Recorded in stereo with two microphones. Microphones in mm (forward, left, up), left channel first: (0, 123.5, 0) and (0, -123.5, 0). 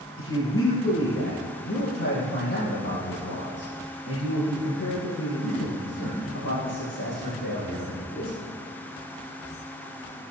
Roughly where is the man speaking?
Left.